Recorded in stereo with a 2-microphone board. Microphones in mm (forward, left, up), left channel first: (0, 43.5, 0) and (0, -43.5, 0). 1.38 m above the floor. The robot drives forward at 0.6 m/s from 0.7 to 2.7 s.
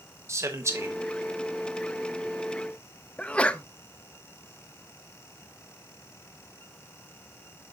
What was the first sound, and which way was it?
A man speaking, 35° right (ahead or behind).